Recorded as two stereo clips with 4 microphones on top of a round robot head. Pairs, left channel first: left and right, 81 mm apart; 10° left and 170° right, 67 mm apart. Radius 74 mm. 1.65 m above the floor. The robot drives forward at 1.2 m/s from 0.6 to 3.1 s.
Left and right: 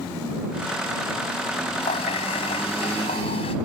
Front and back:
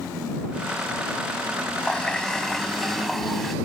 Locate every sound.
1.8 s a running tap: 90° left; by 3.5 s 100° left